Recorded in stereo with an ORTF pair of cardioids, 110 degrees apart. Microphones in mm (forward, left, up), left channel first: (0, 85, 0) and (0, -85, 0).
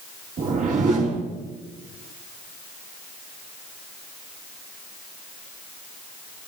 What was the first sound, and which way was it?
A whoosh, 55° right.